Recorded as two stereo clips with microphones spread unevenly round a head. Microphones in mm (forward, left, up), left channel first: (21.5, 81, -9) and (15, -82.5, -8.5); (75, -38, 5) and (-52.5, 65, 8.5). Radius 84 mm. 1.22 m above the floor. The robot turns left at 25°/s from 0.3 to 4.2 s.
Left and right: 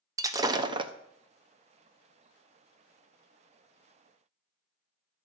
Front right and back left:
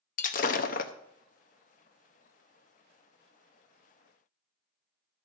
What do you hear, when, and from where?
0.2 s breaking glass: 30° right, 0.6 m; by 0.9 s 45° right, 0.6 m